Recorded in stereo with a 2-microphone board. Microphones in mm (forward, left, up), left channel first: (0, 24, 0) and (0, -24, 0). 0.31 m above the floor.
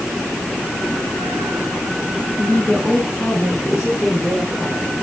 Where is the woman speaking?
20° left (ahead or behind), 3.5 m; by 4.9 s centre (ahead or behind), 3 m.